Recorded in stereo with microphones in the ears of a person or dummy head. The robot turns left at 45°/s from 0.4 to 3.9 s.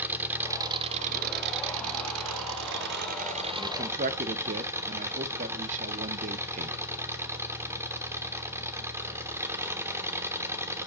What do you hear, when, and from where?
0.0 s an engine running: 10° right, 0.7 m; by 10.9 s 165° right, 0.7 m
3.6 s a man speaking: 25° right (ahead or behind), 0.6 m; by 6.8 s 40° right (ahead or behind), 0.6 m